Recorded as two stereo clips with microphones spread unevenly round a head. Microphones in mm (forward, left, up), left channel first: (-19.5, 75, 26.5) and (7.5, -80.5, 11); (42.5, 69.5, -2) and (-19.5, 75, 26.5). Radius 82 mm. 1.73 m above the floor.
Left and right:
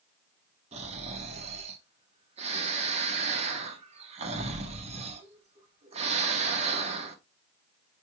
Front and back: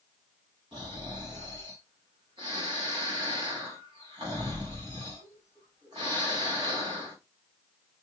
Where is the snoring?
135° right, 0.8 m.